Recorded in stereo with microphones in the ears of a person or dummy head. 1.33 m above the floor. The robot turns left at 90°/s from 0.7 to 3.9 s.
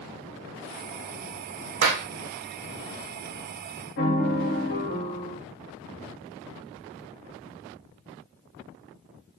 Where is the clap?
65° right (ahead or behind), 0.8 m; by 2.1 s 40° right (ahead or behind), 0.8 m.